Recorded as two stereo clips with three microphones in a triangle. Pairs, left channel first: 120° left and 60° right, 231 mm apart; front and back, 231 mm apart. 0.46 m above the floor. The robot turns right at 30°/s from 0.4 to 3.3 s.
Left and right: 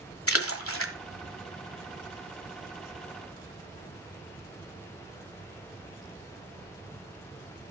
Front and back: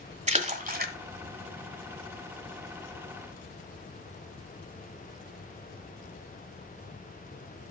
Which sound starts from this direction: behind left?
A splash, at 0.3 s.